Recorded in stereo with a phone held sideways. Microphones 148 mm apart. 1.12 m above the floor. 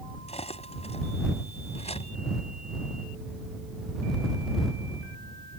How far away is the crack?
I don't hear a crack.